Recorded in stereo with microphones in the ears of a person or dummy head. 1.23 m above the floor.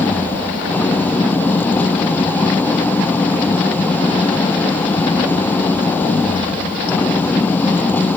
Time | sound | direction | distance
0.0 | an engine running | 10° left (ahead or behind) | ?